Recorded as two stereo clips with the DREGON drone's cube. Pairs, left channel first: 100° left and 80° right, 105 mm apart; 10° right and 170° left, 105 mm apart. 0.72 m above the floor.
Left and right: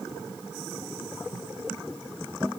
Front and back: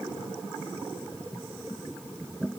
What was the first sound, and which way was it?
Only background noise.